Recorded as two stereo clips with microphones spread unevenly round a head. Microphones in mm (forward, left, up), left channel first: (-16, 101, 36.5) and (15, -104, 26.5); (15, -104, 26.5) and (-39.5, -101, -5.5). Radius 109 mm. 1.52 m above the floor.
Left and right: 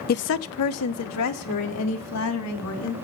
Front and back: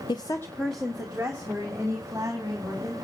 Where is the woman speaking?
50° left, 0.6 m; by 3.0 s 105° left, 4.5 m.